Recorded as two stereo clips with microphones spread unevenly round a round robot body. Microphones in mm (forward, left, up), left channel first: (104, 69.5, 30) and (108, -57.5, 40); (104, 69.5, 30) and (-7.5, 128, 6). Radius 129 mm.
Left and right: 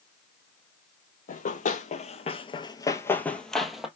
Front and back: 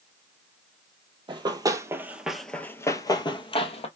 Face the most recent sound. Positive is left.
turn(degrees=-5)